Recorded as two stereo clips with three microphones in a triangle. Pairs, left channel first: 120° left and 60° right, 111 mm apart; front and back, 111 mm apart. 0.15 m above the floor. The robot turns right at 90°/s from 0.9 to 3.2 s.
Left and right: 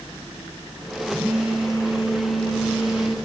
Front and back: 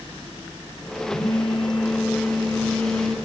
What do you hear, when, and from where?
1.1 s a phone buzzing: 70° right, 1.8 m; by 3.1 s 115° left, 1.8 m